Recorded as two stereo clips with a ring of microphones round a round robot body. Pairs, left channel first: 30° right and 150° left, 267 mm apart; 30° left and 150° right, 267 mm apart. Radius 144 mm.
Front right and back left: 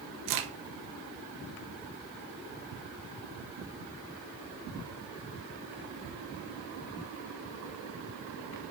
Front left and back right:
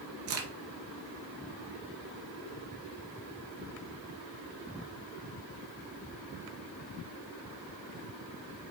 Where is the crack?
170° left, 2.0 m.